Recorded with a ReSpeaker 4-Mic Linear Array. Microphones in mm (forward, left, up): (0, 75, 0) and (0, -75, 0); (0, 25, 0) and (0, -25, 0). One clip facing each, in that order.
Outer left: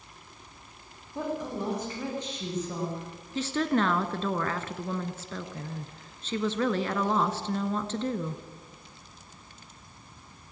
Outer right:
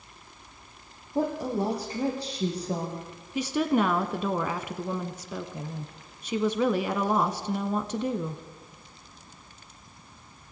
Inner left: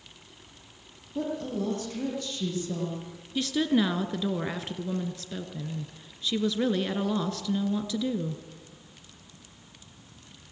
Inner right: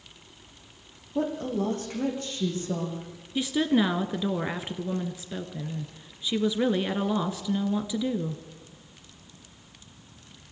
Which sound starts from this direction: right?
A woman speaking, at 1.1 s.